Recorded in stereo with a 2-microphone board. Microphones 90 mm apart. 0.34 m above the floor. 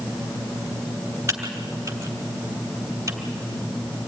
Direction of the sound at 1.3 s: 30° right (ahead or behind).